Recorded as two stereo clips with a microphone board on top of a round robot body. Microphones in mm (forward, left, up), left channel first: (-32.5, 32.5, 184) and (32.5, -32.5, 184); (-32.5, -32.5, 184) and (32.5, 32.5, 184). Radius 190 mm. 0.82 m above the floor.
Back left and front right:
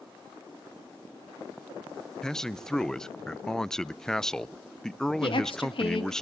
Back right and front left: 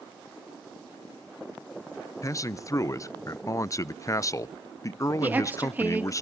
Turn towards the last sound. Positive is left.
turn(degrees=115)